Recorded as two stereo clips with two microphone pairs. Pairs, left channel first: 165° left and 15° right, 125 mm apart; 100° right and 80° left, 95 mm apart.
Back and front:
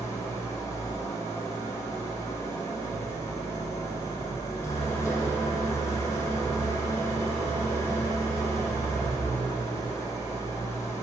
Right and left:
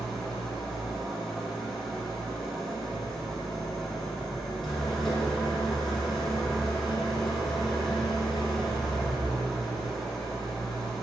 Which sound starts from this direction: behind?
An engine running, at 0.0 s.